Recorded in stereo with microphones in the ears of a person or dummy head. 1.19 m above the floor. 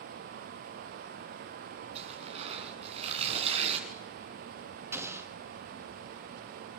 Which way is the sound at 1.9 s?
35° right (ahead or behind).